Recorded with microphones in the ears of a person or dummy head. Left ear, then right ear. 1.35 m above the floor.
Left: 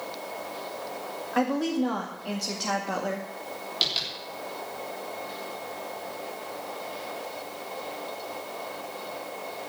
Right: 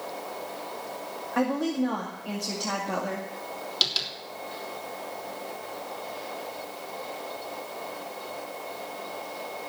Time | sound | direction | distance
1.3 | a woman speaking | 20° left (ahead or behind) | 2 m
3.8 | tapping | 20° right (ahead or behind) | 3 m